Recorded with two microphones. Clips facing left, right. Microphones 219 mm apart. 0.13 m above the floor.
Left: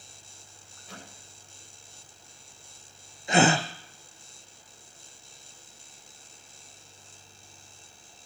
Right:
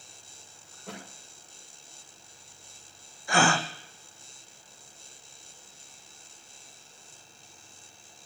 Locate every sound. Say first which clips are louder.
0.7 s a thud: right 5 dB; 85° right, 6 m
3.3 s a gasp: left 4 dB; 20° left (ahead or behind), 1.0 m